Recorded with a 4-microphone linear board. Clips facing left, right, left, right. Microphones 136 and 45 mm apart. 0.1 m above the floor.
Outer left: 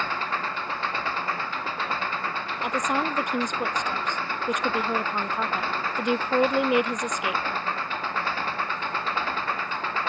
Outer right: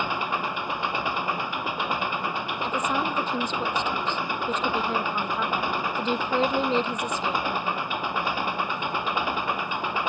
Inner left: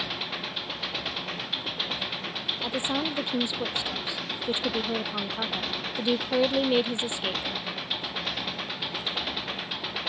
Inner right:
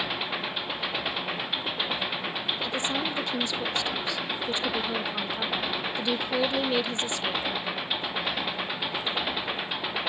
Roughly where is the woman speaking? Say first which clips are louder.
Outer left 1 dB, inner left 2 dB; centre.